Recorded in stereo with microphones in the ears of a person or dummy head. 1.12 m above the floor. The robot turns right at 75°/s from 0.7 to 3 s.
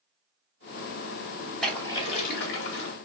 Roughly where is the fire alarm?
I don't hear a fire alarm.